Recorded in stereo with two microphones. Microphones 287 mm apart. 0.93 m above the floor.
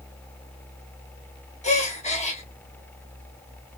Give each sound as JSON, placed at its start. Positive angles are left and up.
{"t": 1.6, "sound": "a gasp", "side_deg": 25, "distance_m": 0.6}